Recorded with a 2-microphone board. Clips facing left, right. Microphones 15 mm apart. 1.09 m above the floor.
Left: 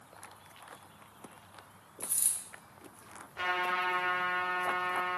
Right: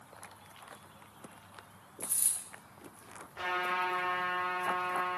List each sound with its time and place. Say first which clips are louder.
2.0 s a dropped coin: even; 30° left (ahead or behind), 0.6 m
3.4 s a trumpet: left 1 dB; 35° left (ahead or behind), 0.9 m